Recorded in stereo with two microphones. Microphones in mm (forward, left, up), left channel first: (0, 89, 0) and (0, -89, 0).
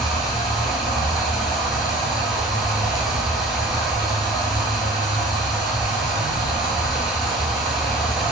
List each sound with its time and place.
0.0 s running water: centre (ahead or behind), 0.9 m